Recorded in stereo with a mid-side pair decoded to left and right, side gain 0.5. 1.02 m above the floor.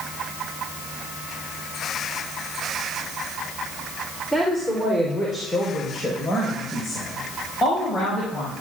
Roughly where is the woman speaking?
Ahead.